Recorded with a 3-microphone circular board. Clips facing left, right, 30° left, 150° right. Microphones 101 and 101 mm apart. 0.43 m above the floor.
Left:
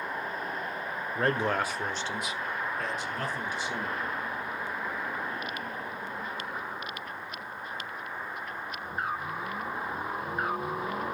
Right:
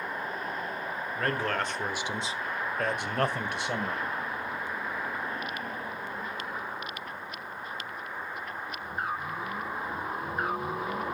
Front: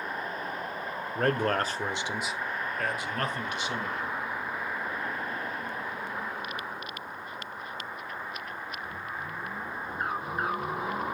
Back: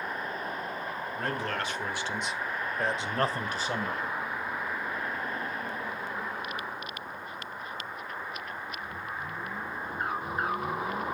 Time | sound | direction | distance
1.1 | a man speaking | 35° left | 1.3 m